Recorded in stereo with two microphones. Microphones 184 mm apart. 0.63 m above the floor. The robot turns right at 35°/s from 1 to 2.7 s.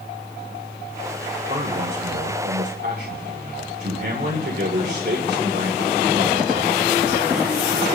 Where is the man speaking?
125° right, 2.5 m; by 7.6 s 80° right, 2.5 m.